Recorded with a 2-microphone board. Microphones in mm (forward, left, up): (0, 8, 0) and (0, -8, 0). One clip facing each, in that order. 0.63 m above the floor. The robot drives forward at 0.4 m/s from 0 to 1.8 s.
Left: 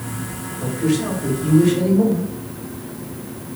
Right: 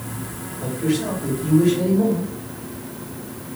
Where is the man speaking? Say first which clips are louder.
Left 2 dB; 55° left (ahead or behind), 2.5 m; by 2.3 s 45° left (ahead or behind), 3 m.